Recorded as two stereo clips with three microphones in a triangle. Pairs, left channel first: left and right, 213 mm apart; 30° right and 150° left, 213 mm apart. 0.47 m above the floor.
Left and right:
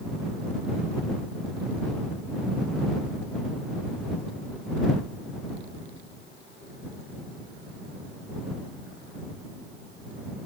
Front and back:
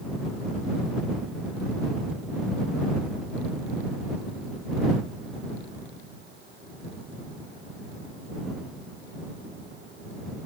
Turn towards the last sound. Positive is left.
No sound to turn to.